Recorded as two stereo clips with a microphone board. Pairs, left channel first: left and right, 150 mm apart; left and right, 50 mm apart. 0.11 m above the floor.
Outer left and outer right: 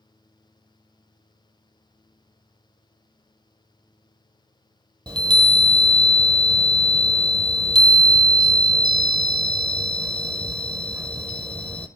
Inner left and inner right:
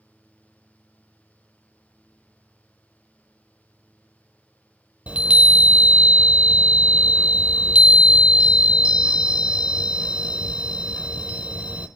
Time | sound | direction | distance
5.1 | a chime | 30° right (ahead or behind) | 0.6 m